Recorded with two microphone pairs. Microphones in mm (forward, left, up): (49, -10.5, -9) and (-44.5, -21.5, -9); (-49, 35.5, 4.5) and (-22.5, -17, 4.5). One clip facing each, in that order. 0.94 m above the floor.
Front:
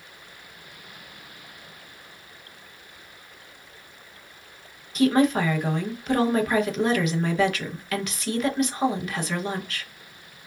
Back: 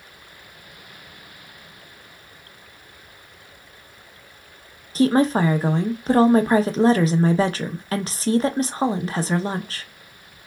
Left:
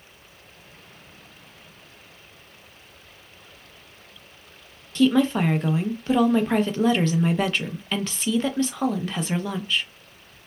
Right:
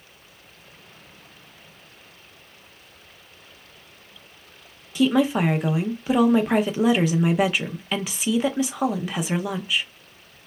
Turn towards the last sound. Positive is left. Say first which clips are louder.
# back 2 dB, even
turn(degrees=-140)